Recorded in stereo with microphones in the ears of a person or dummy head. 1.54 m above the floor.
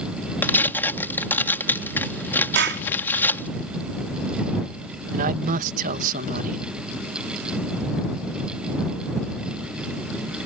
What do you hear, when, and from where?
0.4 s tearing paper: 10° left (ahead or behind)
2.5 s a clap: 65° right (ahead or behind)
5.1 s a man speaking: 45° right (ahead or behind)